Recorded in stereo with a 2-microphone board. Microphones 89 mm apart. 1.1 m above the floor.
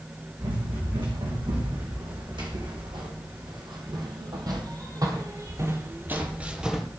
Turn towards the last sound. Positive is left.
turn(degrees=-5)  # may be behind; listen again after turning